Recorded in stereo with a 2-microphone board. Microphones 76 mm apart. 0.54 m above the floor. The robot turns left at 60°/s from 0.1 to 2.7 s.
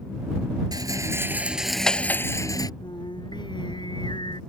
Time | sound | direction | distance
0.7 | a rattle | 120° right | ?
2.8 | singing | 80° left | ?